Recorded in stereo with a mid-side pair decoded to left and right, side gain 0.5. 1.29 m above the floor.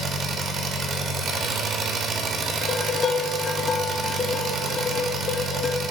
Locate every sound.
0.0 s an engine running: 55° right, 1.0 m
2.6 s dishes clattering: 40° left, 1.0 m